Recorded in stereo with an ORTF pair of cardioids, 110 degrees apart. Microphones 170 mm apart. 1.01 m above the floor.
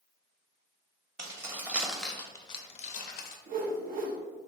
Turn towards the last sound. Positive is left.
turn(degrees=-55)